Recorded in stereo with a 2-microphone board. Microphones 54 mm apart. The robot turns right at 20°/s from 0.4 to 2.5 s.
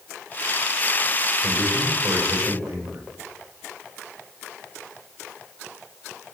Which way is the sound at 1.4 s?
70° right (ahead or behind).